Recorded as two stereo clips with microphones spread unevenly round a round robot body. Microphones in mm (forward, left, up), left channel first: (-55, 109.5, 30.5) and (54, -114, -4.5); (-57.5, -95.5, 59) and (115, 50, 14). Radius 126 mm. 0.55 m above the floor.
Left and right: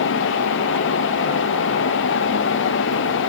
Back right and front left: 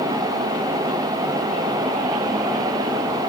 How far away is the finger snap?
No finger snap in this recording.